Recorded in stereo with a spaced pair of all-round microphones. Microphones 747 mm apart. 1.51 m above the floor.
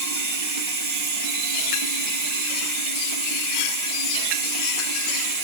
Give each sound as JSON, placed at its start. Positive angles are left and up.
{"t": 0.0, "sound": "running water", "side_deg": -40, "distance_m": 1.1}